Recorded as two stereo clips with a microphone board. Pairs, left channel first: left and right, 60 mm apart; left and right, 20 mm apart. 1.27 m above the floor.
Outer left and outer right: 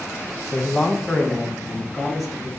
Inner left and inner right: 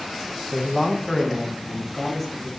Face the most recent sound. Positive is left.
turn(degrees=-5)  # may be behind; listen again after turning